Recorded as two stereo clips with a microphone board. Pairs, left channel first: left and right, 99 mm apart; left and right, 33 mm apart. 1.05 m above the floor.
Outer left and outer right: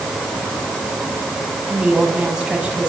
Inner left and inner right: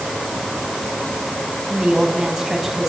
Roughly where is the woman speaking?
Centre.